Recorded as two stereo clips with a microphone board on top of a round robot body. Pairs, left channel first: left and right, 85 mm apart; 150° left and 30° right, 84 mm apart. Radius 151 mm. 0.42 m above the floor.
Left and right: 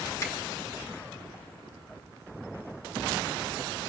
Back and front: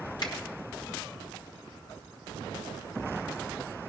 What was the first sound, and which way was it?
A finger snap, 135° left.